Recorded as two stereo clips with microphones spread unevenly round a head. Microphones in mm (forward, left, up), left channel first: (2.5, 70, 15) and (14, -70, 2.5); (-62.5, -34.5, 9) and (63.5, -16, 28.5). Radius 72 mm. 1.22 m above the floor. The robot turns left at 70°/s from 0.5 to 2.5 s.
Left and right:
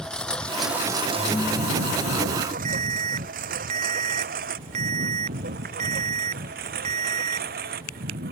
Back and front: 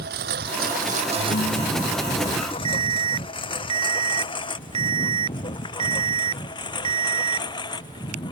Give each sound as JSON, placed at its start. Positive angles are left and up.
{"t": 0.0, "sound": "a lawn mower", "azimuth_deg": 10}
{"t": 1.2, "sound": "a ringtone", "azimuth_deg": -175}
{"t": 2.6, "sound": "an alarm", "azimuth_deg": -40}